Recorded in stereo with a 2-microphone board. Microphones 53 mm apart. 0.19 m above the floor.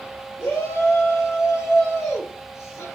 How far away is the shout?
About 3.5 m.